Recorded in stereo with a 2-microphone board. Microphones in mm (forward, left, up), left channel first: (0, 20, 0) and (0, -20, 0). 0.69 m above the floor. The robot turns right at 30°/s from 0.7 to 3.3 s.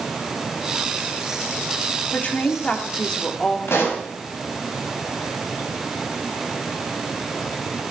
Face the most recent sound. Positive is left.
turn(degrees=75)  # may be behind; listen again after turning